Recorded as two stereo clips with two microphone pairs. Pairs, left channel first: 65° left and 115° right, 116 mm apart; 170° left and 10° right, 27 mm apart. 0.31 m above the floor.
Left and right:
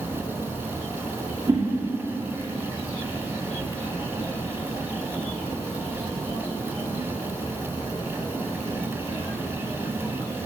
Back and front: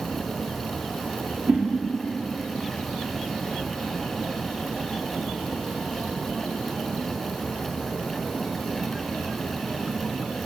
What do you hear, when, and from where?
1.5 s a whoosh: 60° right, 6 m